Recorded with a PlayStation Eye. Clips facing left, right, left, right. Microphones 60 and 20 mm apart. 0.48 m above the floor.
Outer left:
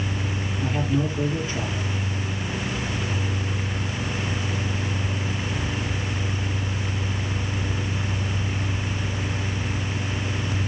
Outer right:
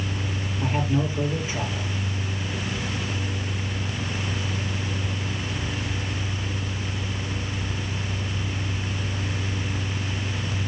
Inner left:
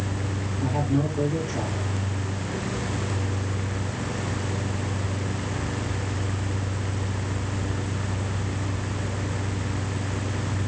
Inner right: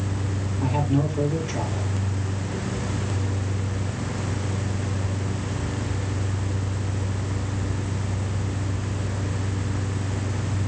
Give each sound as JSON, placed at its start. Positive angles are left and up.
{"t": 0.6, "sound": "a man speaking", "side_deg": -20, "distance_m": 9.5}